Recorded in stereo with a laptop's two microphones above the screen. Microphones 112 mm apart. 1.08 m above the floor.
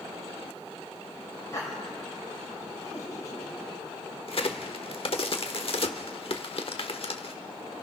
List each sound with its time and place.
1.5 s laughter: 30° left (ahead or behind), 4 m
4.3 s a crack: 55° left (ahead or behind), 1.0 m